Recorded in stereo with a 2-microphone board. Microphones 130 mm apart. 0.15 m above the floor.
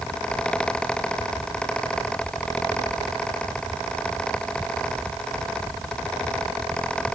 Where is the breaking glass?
I don't hear breaking glass.